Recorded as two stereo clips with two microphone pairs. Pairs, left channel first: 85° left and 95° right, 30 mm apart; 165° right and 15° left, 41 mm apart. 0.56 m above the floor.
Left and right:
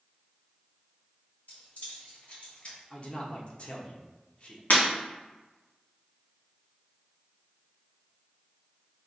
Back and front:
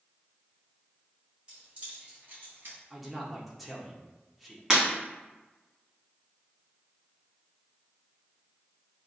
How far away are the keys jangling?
About 1.9 m.